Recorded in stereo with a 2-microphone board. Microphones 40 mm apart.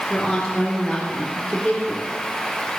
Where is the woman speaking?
10° left (ahead or behind), 3.5 m.